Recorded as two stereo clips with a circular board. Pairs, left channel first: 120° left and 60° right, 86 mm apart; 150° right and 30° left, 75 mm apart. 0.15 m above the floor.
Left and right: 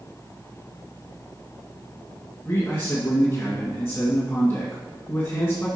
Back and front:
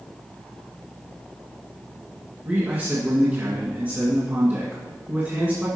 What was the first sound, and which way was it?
A man speaking, 80° left.